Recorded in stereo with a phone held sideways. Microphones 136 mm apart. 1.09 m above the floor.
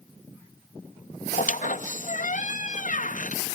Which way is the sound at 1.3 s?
70° left (ahead or behind).